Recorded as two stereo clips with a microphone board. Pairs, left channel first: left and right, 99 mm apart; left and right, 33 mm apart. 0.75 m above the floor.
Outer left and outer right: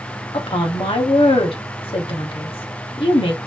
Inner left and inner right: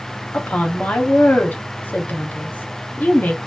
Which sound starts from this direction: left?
A woman speaking, at 0.3 s.